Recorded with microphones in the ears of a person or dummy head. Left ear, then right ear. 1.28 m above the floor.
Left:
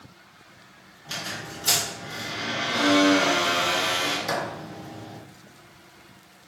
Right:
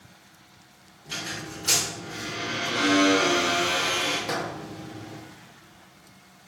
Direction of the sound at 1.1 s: 75° left (ahead or behind).